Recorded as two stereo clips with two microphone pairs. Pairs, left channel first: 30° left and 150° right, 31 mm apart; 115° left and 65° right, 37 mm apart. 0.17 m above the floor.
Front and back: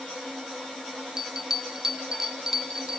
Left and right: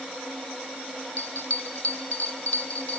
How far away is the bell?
About 0.7 m.